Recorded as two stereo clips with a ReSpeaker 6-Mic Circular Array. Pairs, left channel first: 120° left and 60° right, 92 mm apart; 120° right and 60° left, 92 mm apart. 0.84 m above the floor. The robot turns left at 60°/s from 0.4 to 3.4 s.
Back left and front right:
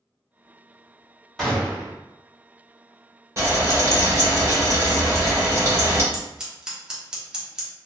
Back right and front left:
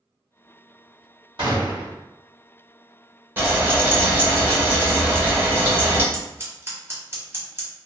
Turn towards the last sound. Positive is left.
turn(degrees=15)